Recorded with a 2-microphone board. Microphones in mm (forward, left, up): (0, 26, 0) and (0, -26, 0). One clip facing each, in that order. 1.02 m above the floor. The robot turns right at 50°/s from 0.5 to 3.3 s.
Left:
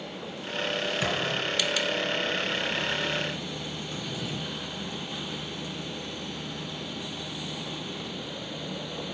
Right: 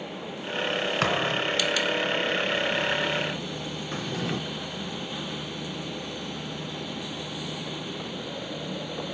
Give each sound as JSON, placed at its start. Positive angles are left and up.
{"t": 1.0, "sound": "a thud", "side_deg": -60, "distance_m": 2.5}
{"t": 3.9, "sound": "a drawer", "side_deg": -55, "distance_m": 0.9}